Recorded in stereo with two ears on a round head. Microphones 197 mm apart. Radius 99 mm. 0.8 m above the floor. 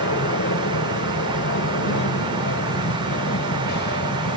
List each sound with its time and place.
0.0 s an aircraft: 55° left (ahead or behind); by 4.4 s 45° left (ahead or behind)